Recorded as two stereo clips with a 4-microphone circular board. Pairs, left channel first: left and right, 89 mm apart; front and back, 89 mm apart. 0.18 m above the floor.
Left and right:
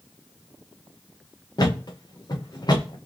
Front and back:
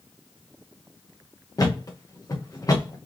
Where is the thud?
50° left, 1.7 m.